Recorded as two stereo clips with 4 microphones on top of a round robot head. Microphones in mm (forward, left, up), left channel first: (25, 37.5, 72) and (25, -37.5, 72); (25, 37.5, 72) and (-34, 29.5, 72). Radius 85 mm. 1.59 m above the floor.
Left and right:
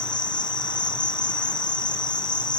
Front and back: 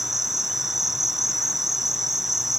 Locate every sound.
0.0 s an insect: 100° left, 1.0 m